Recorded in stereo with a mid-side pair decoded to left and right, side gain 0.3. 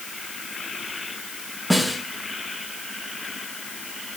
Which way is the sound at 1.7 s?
5° right.